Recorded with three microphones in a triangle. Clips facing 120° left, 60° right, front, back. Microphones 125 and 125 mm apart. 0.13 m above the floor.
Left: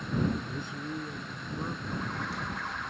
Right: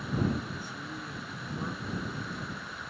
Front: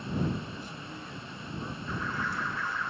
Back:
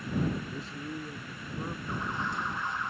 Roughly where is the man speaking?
Behind.